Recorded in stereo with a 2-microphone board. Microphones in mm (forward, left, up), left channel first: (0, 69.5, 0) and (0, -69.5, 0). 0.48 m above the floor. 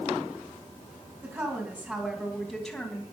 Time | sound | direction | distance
1.2 | a woman speaking | 20° right (ahead or behind) | 4 m